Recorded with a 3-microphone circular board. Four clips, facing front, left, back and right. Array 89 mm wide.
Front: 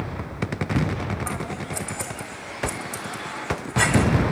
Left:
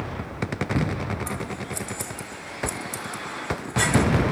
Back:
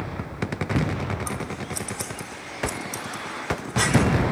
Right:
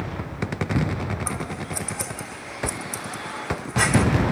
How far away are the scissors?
About 1.4 m.